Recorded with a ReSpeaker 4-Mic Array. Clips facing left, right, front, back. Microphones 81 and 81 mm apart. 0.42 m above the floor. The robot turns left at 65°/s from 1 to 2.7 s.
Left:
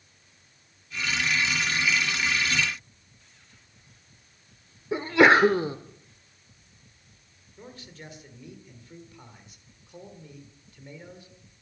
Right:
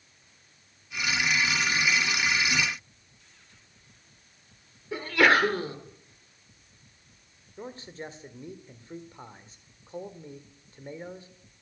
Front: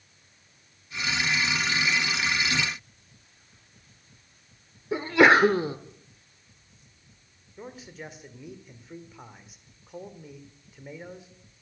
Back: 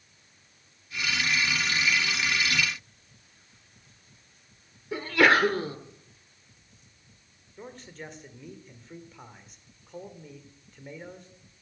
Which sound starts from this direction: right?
A man speaking, at 7.6 s.